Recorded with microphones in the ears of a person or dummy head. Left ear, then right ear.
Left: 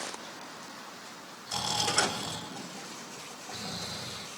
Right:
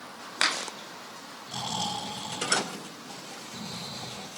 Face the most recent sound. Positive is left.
turn(degrees=65)  # may be behind; listen again after turning